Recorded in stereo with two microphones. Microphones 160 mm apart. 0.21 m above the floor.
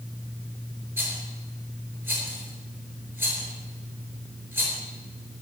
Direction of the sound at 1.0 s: 15° right (ahead or behind).